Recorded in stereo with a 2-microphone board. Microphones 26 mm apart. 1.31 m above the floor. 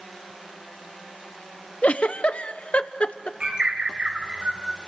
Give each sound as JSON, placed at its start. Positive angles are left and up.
{"t": 1.8, "sound": "a giggle", "side_deg": 55, "distance_m": 0.7}
{"t": 3.4, "sound": "a bird", "side_deg": -40, "distance_m": 4.0}